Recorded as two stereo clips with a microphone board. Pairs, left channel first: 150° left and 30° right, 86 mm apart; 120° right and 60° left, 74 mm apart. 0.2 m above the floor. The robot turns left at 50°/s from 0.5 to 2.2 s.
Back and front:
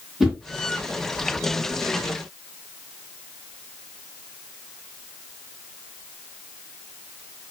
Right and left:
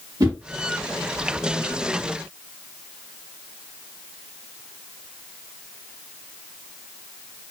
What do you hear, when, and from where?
0.2 s a whoosh: 60° left, 1.1 m